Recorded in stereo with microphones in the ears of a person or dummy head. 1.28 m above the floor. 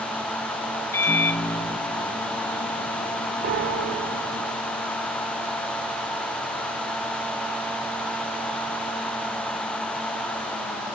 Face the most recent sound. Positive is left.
turn(degrees=-50)  # may be behind; listen again after turning